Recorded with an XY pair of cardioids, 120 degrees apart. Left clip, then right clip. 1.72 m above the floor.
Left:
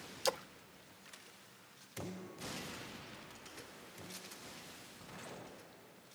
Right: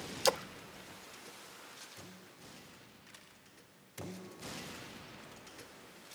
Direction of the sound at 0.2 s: 35° right.